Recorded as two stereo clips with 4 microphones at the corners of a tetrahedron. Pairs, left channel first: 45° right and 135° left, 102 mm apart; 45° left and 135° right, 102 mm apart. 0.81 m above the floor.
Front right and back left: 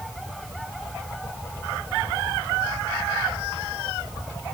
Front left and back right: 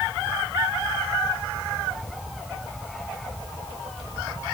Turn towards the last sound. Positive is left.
No sound to turn to.